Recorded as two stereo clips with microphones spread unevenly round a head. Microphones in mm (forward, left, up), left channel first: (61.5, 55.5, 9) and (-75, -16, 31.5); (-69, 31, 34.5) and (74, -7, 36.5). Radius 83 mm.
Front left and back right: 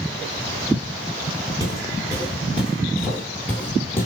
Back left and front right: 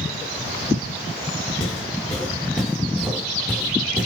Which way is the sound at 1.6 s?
150° right.